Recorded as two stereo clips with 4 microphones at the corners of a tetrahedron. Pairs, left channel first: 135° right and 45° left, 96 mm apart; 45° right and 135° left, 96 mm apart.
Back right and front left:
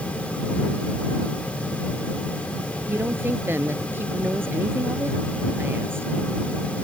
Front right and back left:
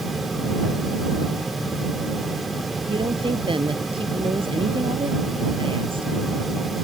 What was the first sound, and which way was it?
A woman speaking, 110° left.